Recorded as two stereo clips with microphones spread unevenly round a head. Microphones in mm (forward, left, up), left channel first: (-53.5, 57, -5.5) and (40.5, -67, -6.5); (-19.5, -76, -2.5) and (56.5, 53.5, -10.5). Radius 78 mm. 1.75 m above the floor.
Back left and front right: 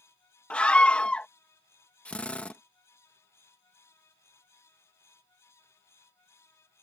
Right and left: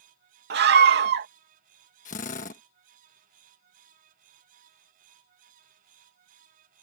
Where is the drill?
150° right.